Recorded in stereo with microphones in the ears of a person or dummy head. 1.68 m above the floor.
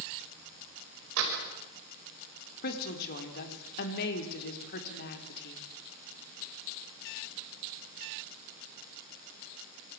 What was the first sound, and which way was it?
A door slam, 80° right.